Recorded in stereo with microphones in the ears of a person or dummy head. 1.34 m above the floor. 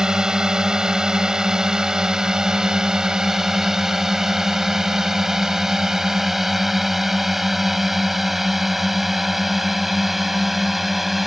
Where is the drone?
5° right (ahead or behind); by 11.3 s centre (ahead or behind).